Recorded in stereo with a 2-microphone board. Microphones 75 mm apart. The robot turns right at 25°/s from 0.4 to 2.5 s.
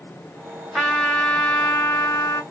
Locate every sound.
0.7 s a trumpet: straight ahead, 1.2 m; by 2.4 s 40° left, 1.2 m